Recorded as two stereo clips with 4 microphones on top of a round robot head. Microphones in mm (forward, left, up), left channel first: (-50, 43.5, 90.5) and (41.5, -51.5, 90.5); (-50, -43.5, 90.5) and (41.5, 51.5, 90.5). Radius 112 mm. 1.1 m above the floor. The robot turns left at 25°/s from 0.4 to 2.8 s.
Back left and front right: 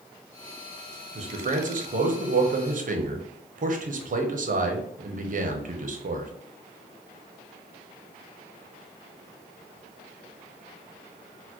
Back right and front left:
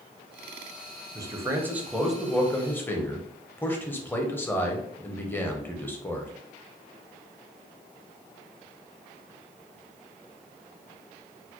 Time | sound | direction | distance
1.1 | a man speaking | 15° right | 0.8 m